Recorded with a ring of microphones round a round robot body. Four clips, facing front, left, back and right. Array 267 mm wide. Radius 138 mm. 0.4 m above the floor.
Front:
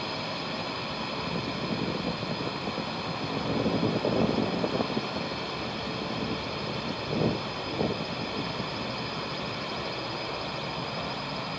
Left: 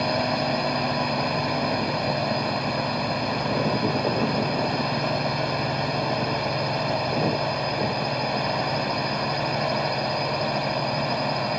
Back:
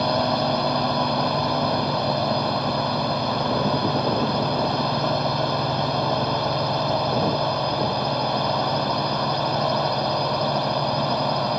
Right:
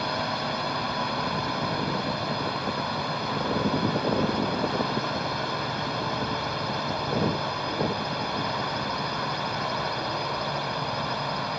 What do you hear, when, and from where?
0.0 s a drone: 150° left